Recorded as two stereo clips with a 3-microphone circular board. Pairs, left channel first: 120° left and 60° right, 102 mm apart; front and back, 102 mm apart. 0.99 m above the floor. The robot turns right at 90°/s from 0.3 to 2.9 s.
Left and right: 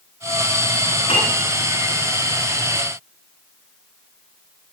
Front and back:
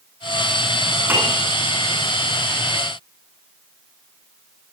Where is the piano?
110° left, 10 m; by 1.4 s 140° left, 10 m.